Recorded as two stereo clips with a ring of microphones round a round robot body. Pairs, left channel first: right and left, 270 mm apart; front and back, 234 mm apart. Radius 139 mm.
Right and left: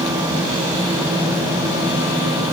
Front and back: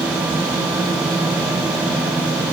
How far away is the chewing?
I don't hear chewing.